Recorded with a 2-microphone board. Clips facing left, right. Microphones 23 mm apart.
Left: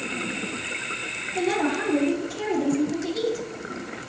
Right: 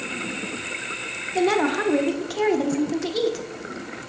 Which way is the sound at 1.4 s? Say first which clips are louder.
Right 4 dB; 45° right (ahead or behind).